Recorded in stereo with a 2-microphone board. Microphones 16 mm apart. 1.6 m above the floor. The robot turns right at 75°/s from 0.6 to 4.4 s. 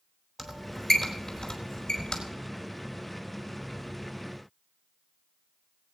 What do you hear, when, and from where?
0.4 s a squeak: centre (ahead or behind), 4 m; by 2.2 s 55° left (ahead or behind), 4 m